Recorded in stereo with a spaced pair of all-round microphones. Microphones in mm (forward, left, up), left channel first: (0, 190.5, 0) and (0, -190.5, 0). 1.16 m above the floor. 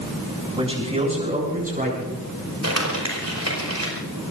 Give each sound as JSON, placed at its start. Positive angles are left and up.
{"t": 0.6, "sound": "a man speaking", "side_deg": -15, "distance_m": 7.0}
{"t": 2.6, "sound": "crumpling", "side_deg": -40, "distance_m": 5.0}